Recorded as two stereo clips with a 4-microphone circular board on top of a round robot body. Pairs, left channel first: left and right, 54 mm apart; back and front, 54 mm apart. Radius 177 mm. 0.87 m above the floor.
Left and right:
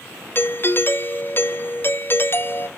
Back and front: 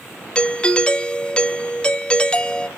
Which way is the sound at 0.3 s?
115° left.